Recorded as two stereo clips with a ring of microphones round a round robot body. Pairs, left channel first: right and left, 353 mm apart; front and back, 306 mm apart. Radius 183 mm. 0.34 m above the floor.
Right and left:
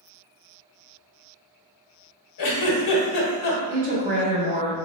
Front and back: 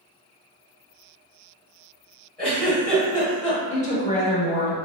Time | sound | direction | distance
2.4 | a giggle | 90° right | 0.8 m
3.7 | a woman speaking | 45° left | 1.0 m